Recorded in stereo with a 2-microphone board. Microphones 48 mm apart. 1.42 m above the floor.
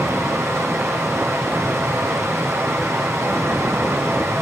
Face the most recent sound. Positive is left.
turn(degrees=-70)  # may be behind; listen again after turning